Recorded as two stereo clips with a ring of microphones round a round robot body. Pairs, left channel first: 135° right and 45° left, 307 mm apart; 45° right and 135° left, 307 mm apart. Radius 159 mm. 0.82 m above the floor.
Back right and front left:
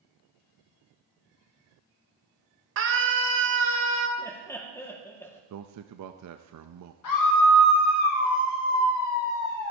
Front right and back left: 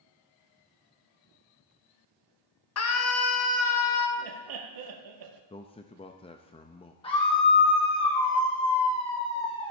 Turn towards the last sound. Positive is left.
turn(degrees=-115)